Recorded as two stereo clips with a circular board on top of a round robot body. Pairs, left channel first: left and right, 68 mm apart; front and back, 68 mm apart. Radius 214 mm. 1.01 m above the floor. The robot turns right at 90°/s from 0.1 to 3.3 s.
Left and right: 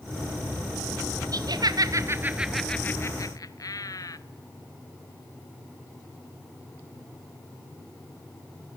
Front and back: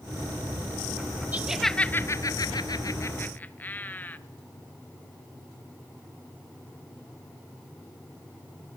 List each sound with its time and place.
1.3 s laughter: 115° right, 1.6 m; by 4.2 s 65° left, 1.6 m